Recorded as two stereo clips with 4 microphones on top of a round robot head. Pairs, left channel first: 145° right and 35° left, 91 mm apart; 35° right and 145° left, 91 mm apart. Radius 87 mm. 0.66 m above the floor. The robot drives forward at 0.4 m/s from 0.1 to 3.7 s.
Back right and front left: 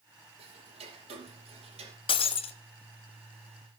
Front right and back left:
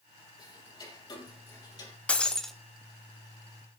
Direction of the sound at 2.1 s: 110° right.